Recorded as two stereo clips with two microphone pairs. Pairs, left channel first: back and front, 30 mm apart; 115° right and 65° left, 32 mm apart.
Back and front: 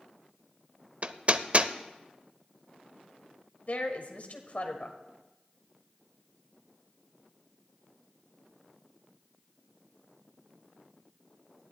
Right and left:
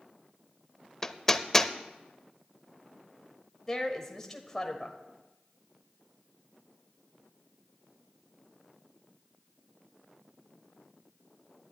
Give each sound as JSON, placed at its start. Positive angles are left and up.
{"t": 1.0, "sound": "hammering", "azimuth_deg": -35, "distance_m": 0.6}
{"t": 3.7, "sound": "a woman speaking", "azimuth_deg": 175, "distance_m": 1.6}